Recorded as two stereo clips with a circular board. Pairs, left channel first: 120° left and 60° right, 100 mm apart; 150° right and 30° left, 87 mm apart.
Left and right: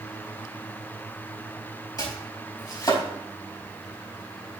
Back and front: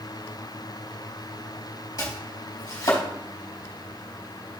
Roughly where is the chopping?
Behind.